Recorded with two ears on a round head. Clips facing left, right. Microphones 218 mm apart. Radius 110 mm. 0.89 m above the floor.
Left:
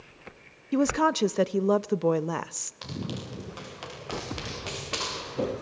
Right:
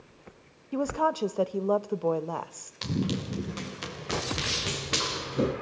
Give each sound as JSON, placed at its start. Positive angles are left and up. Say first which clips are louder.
{"t": 0.7, "sound": "a woman speaking", "louder": "left 5 dB", "side_deg": 30, "distance_m": 0.6}
{"t": 2.8, "sound": "running footsteps", "louder": "right 6 dB", "side_deg": -35, "distance_m": 4.0}